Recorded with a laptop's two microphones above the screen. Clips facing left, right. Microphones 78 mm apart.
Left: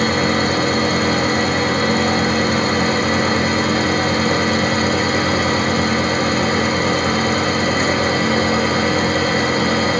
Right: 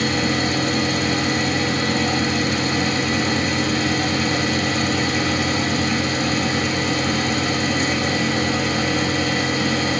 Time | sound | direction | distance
0.0 | a fan | 40° left (ahead or behind) | 1.5 m